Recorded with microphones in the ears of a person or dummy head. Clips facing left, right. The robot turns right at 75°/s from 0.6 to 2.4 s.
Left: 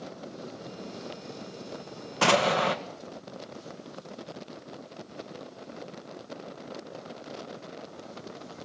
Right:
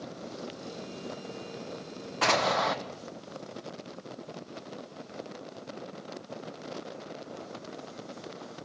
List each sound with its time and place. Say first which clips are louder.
2.2 s an explosion: left 4 dB; 50° left (ahead or behind), 1.4 m; by 2.8 s 35° left (ahead or behind), 1.4 m